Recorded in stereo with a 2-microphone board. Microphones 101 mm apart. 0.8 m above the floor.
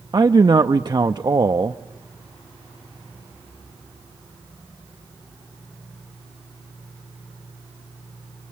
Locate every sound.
0.1 s a man speaking: 40° right (ahead or behind), 0.6 m